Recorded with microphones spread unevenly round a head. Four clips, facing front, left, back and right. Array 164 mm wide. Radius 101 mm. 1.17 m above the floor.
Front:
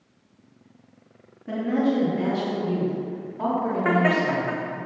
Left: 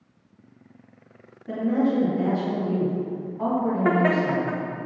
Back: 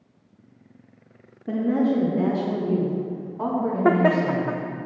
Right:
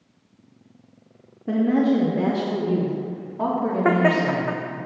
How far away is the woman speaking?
About 3 m.